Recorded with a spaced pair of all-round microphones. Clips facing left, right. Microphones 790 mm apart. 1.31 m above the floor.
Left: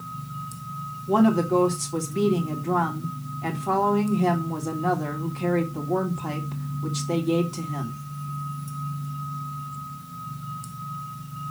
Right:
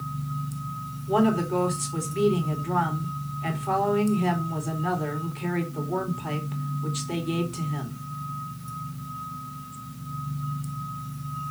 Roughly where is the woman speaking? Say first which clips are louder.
Left 3 dB; left.